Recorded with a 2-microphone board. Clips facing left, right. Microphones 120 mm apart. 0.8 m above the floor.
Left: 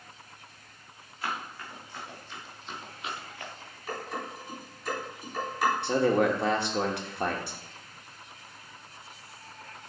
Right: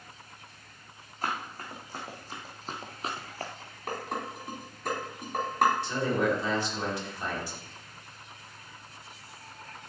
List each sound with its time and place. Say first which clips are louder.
1.2 s running footsteps: right 1 dB; 40° right (ahead or behind), 4 m
3.9 s dishes clattering: right 1 dB; 60° right (ahead or behind), 4 m
5.8 s a man speaking: left 4 dB; 70° left (ahead or behind), 1.8 m